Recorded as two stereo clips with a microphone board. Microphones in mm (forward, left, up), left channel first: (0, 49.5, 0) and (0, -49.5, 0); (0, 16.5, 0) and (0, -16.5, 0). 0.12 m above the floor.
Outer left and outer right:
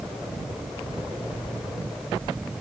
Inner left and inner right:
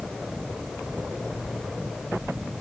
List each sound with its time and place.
Only background noise.